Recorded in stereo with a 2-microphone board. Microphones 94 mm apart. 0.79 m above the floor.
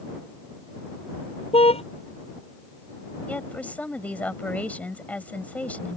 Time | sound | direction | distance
1.5 | a car horn | 80° left | ?
3.3 | a woman speaking | 15° left (ahead or behind) | ?